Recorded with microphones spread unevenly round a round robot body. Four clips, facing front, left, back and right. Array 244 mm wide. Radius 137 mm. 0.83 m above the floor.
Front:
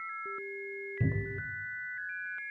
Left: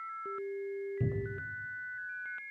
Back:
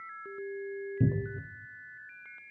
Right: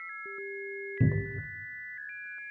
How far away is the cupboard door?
About 0.8 m.